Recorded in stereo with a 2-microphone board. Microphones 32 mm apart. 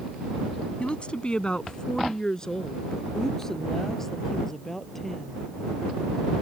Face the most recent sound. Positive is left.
turn(degrees=10)  # may be behind; listen again after turning